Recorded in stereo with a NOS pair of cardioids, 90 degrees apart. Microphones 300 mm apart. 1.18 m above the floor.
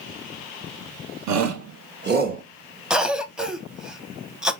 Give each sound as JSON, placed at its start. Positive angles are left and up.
{"t": 1.3, "sound": "a shout", "azimuth_deg": -70, "distance_m": 1.0}
{"t": 2.9, "sound": "a cough", "azimuth_deg": 0, "distance_m": 0.8}